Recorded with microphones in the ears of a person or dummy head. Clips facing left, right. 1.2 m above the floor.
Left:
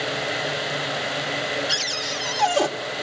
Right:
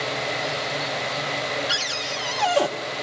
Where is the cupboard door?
5° right (ahead or behind), 1.2 m.